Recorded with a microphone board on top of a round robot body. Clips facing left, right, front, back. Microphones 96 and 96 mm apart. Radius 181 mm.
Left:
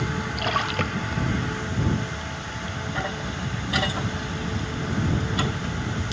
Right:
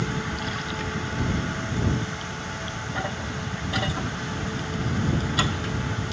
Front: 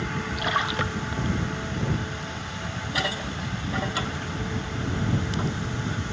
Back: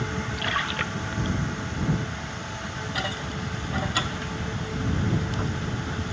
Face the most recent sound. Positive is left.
turn(degrees=70)